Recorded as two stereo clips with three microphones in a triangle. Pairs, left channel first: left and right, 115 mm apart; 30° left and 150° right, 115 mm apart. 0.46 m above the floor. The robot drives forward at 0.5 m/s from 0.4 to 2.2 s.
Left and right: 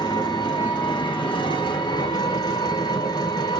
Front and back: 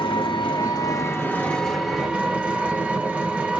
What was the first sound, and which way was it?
An engine running, 55° left.